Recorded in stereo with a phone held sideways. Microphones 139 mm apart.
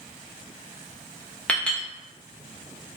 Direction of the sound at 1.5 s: 10° left (ahead or behind).